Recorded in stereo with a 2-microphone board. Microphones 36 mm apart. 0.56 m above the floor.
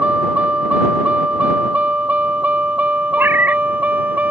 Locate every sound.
0.0 s a vehicle: 45° right (ahead or behind); by 4.3 s 50° right (ahead or behind)
3.2 s a cat meowing: 75° right (ahead or behind)